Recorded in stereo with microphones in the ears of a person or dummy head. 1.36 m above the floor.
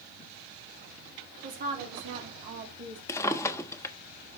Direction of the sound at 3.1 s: 15° left (ahead or behind).